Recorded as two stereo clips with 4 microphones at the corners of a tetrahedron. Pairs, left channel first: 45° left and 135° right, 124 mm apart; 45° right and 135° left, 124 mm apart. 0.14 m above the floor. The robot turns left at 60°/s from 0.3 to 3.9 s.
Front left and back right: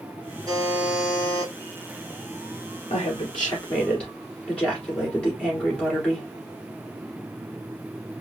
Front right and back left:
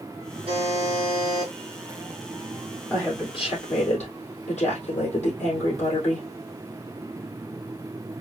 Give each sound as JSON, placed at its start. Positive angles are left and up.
{"t": 0.5, "sound": "a buzzer", "azimuth_deg": 165, "distance_m": 2.0}
{"t": 2.9, "sound": "a woman speaking", "azimuth_deg": 25, "distance_m": 3.0}